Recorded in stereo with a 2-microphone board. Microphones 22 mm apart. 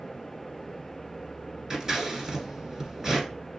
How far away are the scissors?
About 1.9 m.